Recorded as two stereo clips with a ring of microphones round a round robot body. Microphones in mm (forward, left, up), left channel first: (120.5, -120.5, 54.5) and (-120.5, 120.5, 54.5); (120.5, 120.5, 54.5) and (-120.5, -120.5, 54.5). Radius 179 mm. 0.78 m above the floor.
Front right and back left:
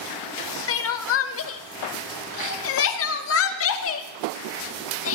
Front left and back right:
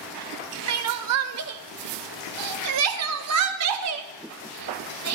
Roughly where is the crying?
Right.